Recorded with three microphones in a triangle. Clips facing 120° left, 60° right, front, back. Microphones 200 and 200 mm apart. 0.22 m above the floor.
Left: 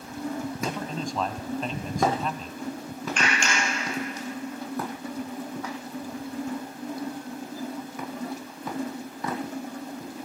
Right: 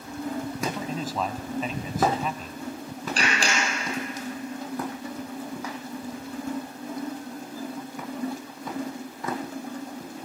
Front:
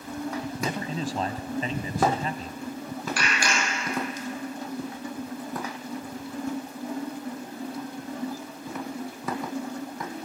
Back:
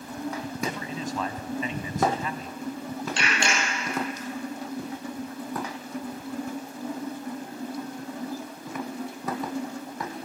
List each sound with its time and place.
0.6 s a man speaking: 20° left, 1.6 m
3.2 s a clap: 115° right, 6 m